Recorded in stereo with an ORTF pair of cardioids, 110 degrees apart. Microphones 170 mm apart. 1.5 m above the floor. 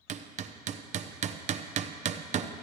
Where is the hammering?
45° right, 0.7 m.